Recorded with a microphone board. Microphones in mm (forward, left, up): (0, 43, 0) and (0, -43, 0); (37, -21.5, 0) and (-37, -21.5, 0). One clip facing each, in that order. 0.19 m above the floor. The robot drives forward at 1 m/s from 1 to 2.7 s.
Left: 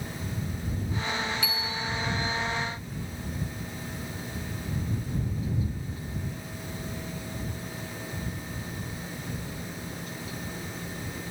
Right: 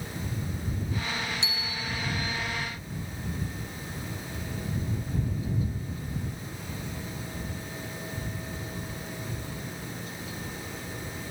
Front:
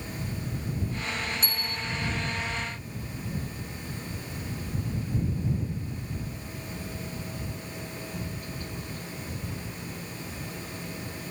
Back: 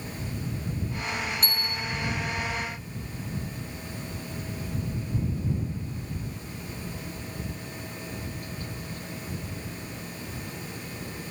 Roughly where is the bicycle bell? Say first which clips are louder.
Left 3 dB, back 2 dB; behind right.